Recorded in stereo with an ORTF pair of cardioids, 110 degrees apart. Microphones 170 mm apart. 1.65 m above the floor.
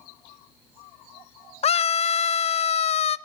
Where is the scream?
40° left, 0.9 m.